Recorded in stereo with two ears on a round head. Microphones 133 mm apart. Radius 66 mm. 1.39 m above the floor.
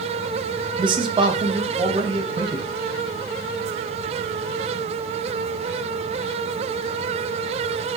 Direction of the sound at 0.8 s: 30° right (ahead or behind).